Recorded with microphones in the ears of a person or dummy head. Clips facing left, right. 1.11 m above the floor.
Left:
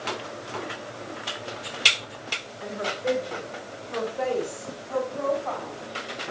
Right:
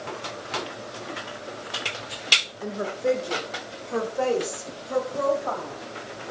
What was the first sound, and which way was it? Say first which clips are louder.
A woman speaking: right 3 dB; 40° right (ahead or behind).